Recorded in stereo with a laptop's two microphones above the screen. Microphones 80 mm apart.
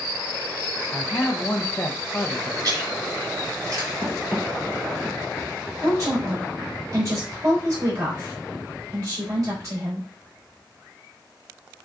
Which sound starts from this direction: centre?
Running footsteps, at 4.0 s.